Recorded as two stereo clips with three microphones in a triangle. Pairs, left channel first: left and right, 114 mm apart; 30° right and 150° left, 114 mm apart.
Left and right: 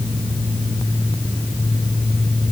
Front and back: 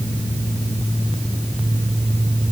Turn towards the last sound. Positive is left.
No sound to turn to.